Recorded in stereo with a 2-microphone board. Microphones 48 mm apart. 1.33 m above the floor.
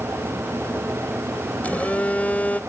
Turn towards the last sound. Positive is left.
turn(degrees=30)  # may be behind; listen again after turning